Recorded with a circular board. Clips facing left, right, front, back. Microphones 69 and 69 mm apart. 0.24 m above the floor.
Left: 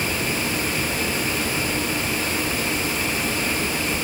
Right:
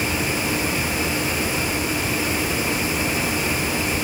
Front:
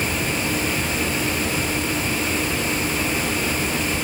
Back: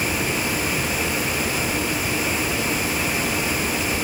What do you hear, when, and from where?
Only background noise.